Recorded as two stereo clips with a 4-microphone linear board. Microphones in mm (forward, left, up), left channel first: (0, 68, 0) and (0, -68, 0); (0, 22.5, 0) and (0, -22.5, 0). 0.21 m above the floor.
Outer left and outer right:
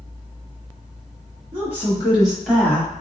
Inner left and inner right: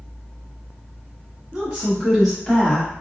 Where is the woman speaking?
20° right (ahead or behind), 1.4 m; by 2.9 s 15° left (ahead or behind), 1.2 m.